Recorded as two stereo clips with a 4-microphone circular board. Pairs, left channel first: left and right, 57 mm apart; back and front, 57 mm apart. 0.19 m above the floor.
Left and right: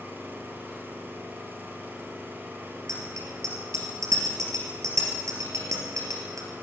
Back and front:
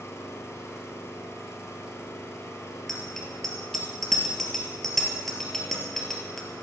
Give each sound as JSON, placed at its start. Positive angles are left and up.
{"t": 0.0, "sound": "an engine running", "azimuth_deg": -145, "distance_m": 3.0}
{"t": 2.9, "sound": "a bicycle bell", "azimuth_deg": -95, "distance_m": 3.0}